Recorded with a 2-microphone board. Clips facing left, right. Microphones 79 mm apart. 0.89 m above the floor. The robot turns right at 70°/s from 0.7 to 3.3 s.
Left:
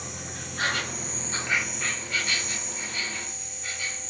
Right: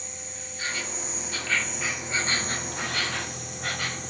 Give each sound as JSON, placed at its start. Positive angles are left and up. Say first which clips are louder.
{"t": 0.0, "sound": "an insect", "louder": "left 4 dB", "azimuth_deg": 105, "distance_m": 0.8}